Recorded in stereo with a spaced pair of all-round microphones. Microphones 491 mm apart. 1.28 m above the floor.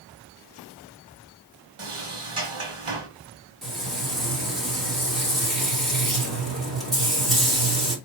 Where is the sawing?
No sawing in this recording.